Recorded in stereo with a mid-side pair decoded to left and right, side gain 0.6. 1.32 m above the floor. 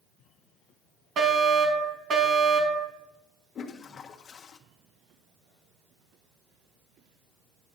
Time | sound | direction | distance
1.2 | a fire alarm | 40° right | 3.5 m
3.5 | a toilet flushing | 40° left | 1.4 m